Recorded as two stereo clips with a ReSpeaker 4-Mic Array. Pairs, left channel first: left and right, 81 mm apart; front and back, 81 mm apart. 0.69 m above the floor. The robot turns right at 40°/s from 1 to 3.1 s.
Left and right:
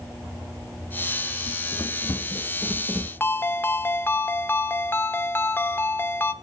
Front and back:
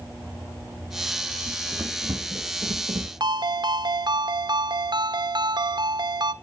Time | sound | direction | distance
1.5 | running footsteps | 105° left | 3.5 m
3.2 | a ringtone | 155° left | 0.7 m